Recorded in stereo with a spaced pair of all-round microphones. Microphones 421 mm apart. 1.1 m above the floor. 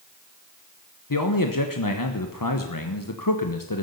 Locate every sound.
1.1 s a man speaking: 50° left (ahead or behind), 1.0 m